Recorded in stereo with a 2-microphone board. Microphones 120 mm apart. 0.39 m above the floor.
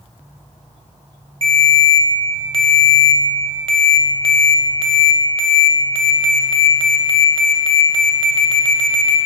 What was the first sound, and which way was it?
A ringtone, 45° right (ahead or behind).